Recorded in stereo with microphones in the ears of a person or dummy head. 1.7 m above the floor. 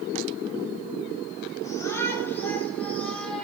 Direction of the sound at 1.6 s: 15° left (ahead or behind).